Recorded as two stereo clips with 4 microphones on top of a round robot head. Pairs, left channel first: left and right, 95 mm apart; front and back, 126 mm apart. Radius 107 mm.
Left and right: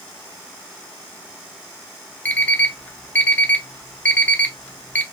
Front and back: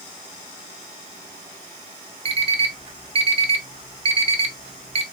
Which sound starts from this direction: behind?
An alarm clock, at 2.2 s.